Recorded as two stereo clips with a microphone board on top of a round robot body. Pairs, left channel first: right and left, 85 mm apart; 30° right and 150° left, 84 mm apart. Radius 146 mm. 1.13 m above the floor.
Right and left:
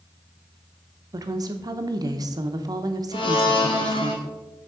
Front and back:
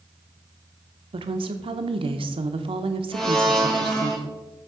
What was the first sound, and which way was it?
A woman speaking, 135° left.